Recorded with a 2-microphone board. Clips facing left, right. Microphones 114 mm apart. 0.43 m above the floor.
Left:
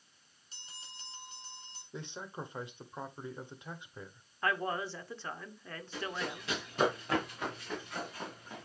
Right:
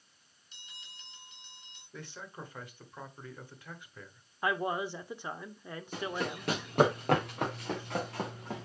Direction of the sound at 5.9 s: 55° right (ahead or behind).